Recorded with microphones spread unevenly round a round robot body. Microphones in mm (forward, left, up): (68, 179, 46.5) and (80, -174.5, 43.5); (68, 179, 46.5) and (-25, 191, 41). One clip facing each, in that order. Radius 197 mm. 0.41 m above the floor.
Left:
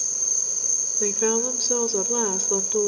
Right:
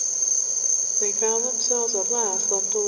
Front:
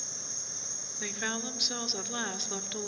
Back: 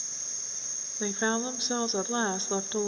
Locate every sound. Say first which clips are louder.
0.0 s an insect: left 1 dB, front 4 dB; 55° right, 2.5 m
1.0 s a woman speaking: left 2 dB, back 8 dB; 150° left, 0.9 m